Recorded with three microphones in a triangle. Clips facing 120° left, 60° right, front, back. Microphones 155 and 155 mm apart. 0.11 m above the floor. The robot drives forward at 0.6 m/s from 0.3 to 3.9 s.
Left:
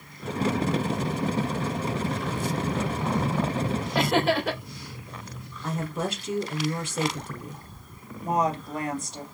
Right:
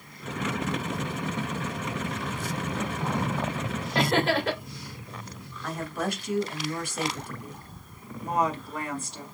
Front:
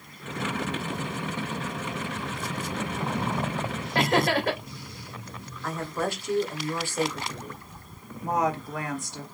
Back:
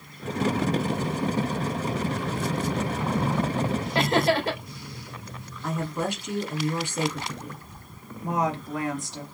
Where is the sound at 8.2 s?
125° left, 2.0 m.